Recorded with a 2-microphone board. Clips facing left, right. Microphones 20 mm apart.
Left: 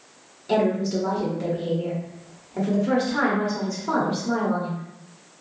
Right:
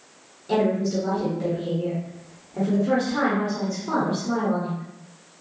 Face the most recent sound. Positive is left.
turn(degrees=15)  # may be behind; listen again after turning